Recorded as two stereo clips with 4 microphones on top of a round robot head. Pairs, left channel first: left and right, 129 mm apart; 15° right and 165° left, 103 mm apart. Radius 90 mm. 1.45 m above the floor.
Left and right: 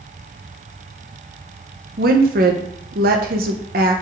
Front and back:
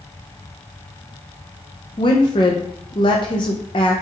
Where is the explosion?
No explosion in this recording.